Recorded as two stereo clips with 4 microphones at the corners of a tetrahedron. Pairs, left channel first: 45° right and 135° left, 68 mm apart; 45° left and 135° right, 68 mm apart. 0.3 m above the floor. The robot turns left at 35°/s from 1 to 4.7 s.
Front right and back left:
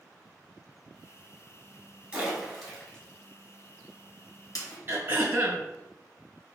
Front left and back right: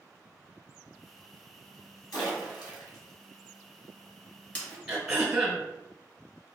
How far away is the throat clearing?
About 1.2 m.